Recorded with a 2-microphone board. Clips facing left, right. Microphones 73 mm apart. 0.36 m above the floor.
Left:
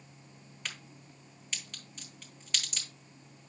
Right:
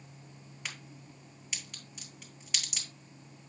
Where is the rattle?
I don't hear a rattle.